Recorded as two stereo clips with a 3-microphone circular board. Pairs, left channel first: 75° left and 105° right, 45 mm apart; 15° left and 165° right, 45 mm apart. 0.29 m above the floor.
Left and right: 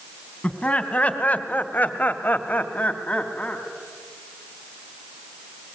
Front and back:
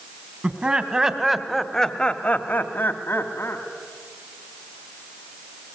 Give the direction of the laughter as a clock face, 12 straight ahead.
8 o'clock.